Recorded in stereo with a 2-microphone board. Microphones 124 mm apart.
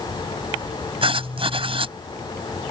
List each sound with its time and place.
1.0 s writing: 50° right (ahead or behind)